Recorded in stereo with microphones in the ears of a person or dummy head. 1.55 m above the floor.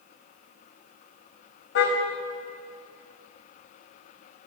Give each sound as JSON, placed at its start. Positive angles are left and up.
{"t": 1.8, "sound": "a car horn", "side_deg": 70, "distance_m": 4.0}